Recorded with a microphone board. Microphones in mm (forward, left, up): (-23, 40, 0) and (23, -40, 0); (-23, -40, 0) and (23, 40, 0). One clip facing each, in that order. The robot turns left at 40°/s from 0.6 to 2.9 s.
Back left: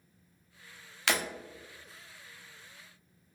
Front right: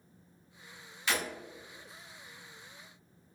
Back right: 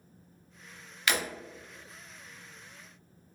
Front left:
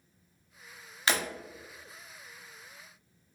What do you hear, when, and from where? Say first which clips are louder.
1.1 s breaking glass: back left 2 dB, front left 1 dB; 120° left, 0.7 m; by 1.2 s 110° left, 0.7 m